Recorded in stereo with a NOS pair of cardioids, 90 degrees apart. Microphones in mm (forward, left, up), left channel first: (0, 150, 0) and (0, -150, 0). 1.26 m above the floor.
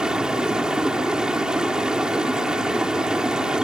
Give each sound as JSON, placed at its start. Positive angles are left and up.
{"t": 0.0, "sound": "running water", "azimuth_deg": -5}